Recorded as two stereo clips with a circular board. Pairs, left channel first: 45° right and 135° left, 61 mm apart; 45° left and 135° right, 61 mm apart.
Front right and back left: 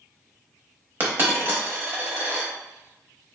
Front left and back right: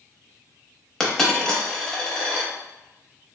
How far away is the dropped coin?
About 0.7 m.